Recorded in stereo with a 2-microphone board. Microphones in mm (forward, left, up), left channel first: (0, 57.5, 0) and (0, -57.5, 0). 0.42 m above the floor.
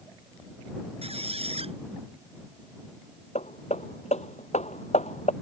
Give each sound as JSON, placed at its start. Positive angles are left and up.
{"t": 1.0, "sound": "a squeak", "side_deg": -60}
{"t": 3.4, "sound": "hammering", "side_deg": 75}